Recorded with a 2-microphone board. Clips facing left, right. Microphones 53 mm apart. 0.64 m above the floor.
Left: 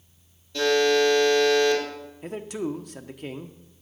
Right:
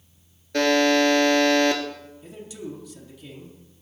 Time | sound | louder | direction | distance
0.5 | a buzzer | right 2 dB | 60° right (ahead or behind) | 2 m
2.2 | a man speaking | left 8 dB | 55° left (ahead or behind) | 0.9 m